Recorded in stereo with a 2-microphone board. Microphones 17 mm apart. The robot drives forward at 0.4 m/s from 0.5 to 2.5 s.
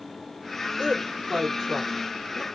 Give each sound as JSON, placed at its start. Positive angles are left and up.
{"t": 0.8, "sound": "a woman speaking", "side_deg": -45, "distance_m": 1.8}